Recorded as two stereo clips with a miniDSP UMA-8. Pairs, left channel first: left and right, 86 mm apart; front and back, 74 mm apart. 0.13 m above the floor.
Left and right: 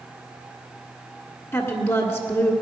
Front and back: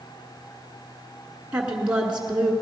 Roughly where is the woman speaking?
Behind left.